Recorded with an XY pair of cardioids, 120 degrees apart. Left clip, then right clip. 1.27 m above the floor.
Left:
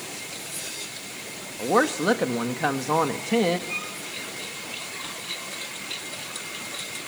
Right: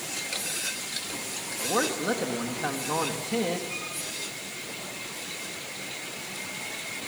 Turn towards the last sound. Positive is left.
turn(degrees=35)